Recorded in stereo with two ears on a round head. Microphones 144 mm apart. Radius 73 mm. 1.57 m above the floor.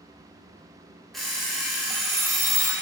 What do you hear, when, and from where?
1.1 s an alarm clock: centre (ahead or behind), 1.1 m